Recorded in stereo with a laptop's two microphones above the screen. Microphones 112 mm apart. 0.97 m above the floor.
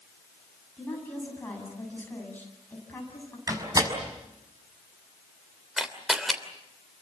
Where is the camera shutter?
Centre (ahead or behind), 3 m.